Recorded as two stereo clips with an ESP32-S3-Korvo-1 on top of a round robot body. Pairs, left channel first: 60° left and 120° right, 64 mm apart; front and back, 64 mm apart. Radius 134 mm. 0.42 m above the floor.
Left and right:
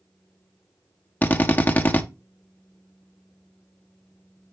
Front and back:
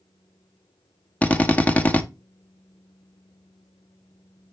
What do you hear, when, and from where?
1.2 s a drill: 40° left, 1.1 m